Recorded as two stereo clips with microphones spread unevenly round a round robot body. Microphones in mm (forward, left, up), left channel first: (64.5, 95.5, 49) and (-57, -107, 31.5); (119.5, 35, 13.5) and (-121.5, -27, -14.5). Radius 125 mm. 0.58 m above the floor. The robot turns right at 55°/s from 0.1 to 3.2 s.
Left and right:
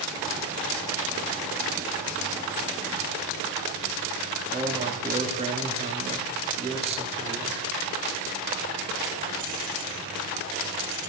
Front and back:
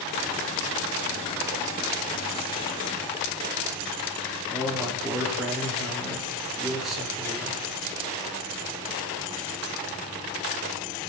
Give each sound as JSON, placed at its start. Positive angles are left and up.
{"t": 4.5, "sound": "a man speaking", "azimuth_deg": -85, "distance_m": 1.4}